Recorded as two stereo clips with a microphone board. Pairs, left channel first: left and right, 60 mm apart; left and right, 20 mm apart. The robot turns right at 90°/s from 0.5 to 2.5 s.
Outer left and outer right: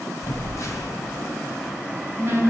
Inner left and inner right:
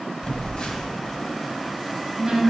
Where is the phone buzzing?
55° left (ahead or behind), 0.6 m; by 2.4 s 50° right (ahead or behind), 0.6 m.